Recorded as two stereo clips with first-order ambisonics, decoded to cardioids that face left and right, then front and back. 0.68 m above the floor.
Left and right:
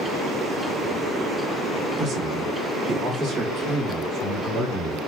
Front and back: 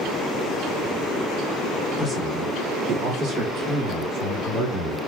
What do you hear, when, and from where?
2.0 s a man speaking: 80° right, 1.0 m; by 5.0 s 165° right, 3 m